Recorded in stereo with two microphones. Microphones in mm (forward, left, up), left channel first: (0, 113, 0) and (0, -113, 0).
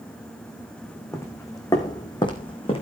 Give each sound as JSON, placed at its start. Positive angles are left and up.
{"t": 1.1, "sound": "footsteps", "side_deg": 10, "distance_m": 3.5}